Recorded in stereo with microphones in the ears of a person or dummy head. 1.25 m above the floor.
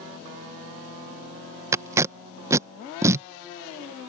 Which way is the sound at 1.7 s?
15° right (ahead or behind).